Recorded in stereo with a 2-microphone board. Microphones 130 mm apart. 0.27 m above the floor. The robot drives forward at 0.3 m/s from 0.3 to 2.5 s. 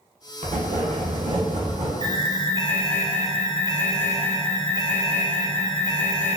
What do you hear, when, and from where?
0.4 s writing: 65° right (ahead or behind), 0.6 m; by 1.9 s 55° right (ahead or behind), 0.6 m
2.0 s an alarm: 25° left (ahead or behind), 1.6 m